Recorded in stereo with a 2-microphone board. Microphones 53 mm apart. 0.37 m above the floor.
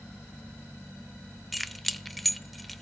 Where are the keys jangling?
5° left (ahead or behind), 0.5 m.